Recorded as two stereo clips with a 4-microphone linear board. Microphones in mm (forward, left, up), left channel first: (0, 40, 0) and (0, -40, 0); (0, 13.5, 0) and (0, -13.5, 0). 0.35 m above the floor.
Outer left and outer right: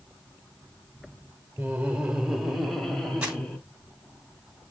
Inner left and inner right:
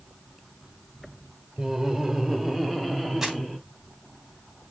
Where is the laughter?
20° right (ahead or behind), 1.5 m; by 3.6 s 10° left (ahead or behind), 3 m.